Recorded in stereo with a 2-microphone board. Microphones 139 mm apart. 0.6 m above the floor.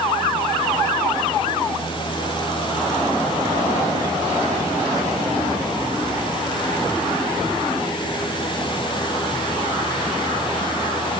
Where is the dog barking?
I don't hear a dog barking.